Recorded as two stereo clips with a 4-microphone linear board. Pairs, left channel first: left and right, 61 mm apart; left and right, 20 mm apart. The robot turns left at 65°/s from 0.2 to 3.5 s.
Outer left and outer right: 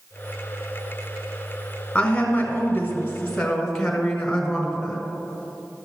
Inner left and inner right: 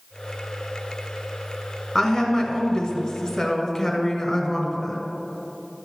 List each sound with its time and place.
1.9 s a woman speaking: 115° left, 1.5 m; by 5.0 s 15° left, 1.5 m